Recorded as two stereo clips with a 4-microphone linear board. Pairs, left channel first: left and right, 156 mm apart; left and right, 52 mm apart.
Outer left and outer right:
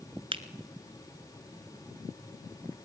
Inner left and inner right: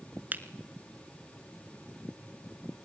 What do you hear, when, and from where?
0.3 s a finger snap: 35° right (ahead or behind), 1.2 m